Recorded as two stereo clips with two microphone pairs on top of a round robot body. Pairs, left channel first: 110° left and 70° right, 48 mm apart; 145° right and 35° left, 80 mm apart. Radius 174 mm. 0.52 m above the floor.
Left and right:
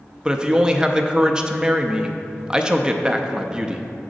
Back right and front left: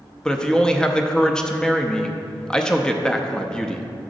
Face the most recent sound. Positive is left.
turn(degrees=-80)